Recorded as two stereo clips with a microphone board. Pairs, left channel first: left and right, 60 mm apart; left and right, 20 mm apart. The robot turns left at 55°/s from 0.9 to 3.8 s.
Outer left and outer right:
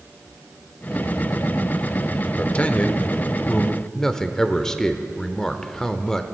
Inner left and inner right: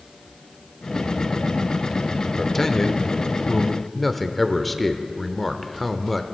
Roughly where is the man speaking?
Left.